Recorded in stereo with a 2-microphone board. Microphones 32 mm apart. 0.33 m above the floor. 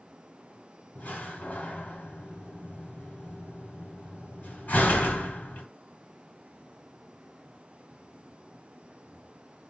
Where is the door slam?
65° left (ahead or behind), 1.2 m.